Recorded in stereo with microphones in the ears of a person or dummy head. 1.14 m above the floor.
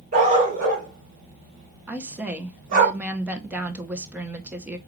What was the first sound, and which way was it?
A dog barking, 45° right (ahead or behind).